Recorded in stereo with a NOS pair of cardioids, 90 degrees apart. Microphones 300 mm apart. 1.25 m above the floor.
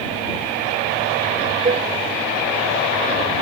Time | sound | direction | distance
1.6 | a cowbell | 30° right | ?